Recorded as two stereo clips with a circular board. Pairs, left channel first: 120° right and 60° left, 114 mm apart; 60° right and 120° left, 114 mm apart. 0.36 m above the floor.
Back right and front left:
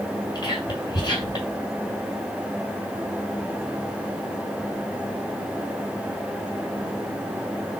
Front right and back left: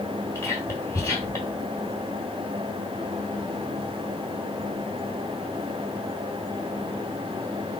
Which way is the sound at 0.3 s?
110° right.